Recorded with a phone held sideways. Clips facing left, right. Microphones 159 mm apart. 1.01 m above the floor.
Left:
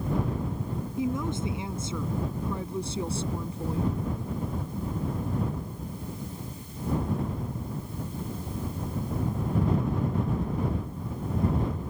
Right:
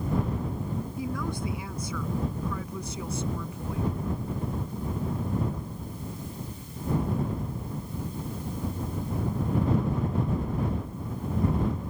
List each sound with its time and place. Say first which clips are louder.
1.0 s a woman speaking: left 6 dB; 20° left (ahead or behind); by 3.9 s 35° left (ahead or behind)